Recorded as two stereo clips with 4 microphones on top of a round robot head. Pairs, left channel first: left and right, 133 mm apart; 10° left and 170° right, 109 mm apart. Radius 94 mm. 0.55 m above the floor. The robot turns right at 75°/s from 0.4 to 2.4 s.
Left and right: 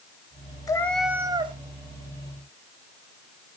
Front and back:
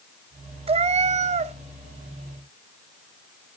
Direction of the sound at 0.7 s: 155° left.